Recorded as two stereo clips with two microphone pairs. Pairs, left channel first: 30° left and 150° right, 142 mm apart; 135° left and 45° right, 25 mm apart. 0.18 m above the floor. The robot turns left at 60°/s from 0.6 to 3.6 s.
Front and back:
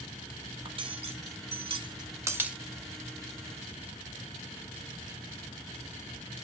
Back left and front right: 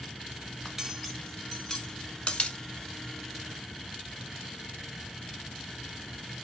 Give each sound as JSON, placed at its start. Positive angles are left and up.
{"t": 0.7, "sound": "cutlery clinking", "azimuth_deg": -115, "distance_m": 0.8}